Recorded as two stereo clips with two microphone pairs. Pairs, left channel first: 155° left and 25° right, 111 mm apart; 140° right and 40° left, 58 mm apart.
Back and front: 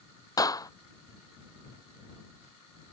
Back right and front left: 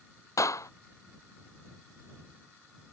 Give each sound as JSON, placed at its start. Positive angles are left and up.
{"t": 0.4, "sound": "a clap", "azimuth_deg": -150}